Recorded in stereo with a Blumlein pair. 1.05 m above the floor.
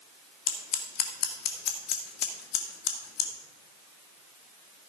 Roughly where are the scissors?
Ahead left.